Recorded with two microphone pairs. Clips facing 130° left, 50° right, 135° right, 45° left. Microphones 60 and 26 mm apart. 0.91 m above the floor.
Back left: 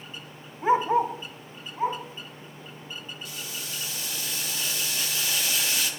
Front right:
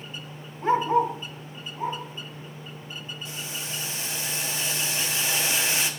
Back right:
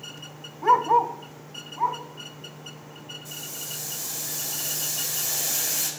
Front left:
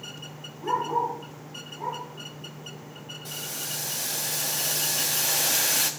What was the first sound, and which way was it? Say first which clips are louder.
A dog barking: even, back right 7 dB; 160° right.